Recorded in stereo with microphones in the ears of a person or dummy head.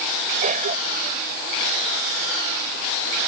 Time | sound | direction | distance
0.4 | a cough | 45° right (ahead or behind) | ?